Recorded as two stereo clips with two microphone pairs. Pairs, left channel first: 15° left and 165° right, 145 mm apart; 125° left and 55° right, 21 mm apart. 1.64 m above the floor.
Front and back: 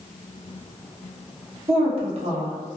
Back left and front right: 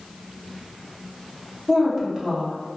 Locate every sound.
1.7 s a woman speaking: 120° right, 0.8 m